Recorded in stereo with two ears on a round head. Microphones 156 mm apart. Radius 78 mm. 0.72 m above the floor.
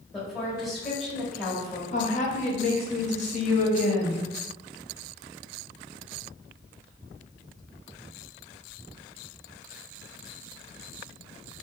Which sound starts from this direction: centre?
A woman speaking, at 0.1 s.